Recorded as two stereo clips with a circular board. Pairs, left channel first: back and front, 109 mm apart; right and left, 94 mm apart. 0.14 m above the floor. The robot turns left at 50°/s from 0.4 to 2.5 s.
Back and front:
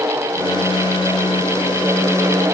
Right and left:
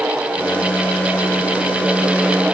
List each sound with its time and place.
Only background noise.